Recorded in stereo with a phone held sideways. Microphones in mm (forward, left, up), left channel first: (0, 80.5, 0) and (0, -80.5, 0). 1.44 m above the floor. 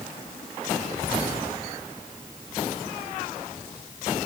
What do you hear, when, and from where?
Only background noise.